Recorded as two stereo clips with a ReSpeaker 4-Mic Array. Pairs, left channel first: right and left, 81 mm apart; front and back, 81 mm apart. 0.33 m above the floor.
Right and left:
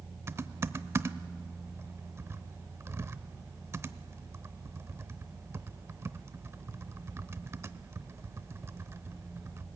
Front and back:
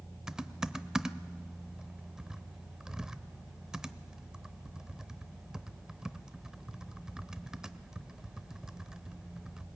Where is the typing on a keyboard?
105° left, 0.7 m.